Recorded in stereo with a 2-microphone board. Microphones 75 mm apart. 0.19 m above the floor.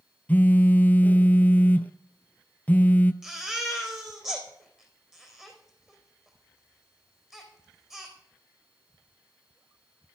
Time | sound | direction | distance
0.3 | a phone buzzing | 20° left (ahead or behind) | 0.6 m
3.2 | a baby crying | 5° right (ahead or behind) | 3.5 m